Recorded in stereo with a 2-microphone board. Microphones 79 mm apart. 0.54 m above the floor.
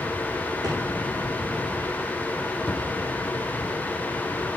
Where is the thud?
10° left (ahead or behind), 5 m.